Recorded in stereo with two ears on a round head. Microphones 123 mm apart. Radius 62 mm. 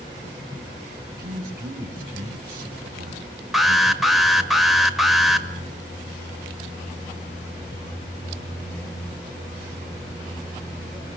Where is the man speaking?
70° right (ahead or behind), 4 m.